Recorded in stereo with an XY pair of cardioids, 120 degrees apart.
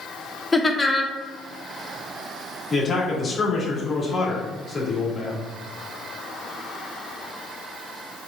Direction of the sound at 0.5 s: 15° left.